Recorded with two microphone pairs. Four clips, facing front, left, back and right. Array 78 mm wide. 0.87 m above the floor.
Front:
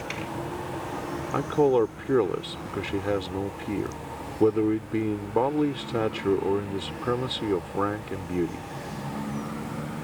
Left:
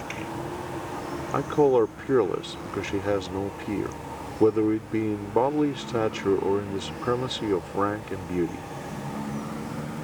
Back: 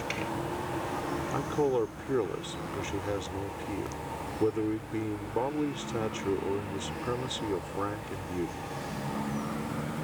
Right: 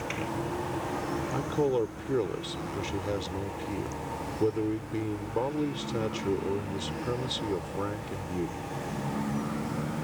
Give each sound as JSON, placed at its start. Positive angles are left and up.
{"t": 1.3, "sound": "a man speaking", "azimuth_deg": 60}